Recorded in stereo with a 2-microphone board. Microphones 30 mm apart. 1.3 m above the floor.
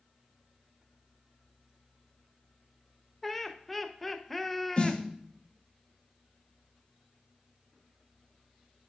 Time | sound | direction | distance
3.2 | laughter | centre (ahead or behind) | 0.8 m
4.8 | a snare drum | 30° left (ahead or behind) | 1.0 m